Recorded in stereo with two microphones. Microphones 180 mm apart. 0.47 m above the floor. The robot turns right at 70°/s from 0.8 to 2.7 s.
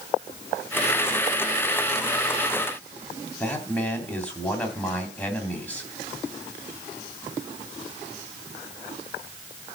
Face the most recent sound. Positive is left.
turn(degrees=10)  # may be behind; listen again after turning